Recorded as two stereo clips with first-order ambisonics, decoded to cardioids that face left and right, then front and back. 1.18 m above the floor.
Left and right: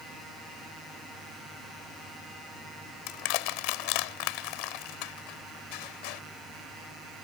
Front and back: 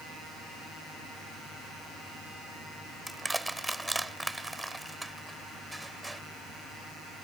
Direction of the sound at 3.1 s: 95° left.